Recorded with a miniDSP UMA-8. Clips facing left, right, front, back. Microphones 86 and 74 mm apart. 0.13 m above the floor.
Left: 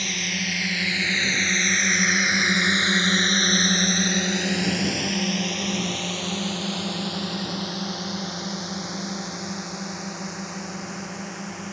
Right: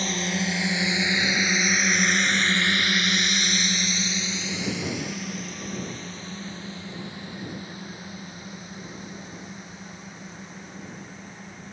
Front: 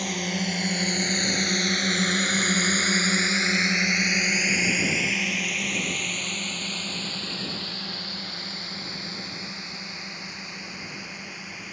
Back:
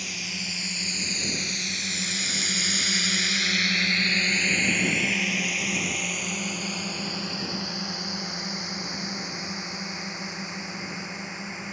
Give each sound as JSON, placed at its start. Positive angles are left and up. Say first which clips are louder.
{"t": 0.0, "sound": "a drone", "louder": "right 3 dB, front 8 dB", "azimuth_deg": -35}